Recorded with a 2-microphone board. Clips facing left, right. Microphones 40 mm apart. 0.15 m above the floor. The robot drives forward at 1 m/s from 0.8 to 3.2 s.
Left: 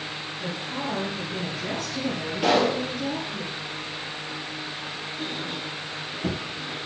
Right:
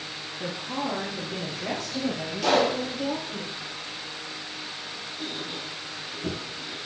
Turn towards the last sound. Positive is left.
turn(degrees=15)  # may be behind; listen again after turning